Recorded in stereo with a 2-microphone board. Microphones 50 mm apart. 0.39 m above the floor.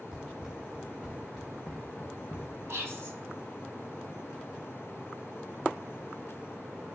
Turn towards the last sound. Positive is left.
turn(degrees=-65)  # may be behind; listen again after turning